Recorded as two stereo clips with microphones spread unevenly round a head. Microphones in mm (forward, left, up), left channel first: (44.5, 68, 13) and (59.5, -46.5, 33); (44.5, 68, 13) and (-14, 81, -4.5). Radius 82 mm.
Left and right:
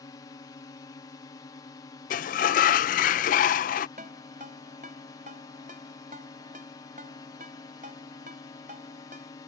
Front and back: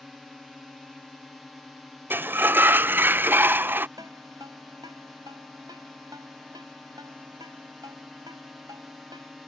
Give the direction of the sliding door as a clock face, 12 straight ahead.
8 o'clock.